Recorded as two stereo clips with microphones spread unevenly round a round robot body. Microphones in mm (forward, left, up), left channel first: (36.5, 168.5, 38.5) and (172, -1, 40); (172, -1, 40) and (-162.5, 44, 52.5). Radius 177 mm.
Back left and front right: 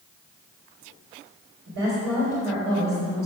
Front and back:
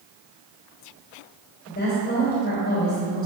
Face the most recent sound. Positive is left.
turn(degrees=-65)